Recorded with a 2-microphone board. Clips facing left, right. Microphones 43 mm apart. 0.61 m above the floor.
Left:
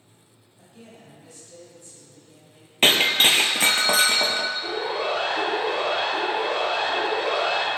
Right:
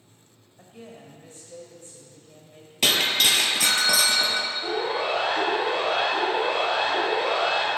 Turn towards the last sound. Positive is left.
turn(degrees=-10)  # may be behind; listen again after turning